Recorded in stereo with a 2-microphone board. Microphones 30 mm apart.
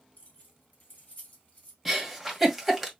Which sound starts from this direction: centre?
A giggle, at 1.9 s.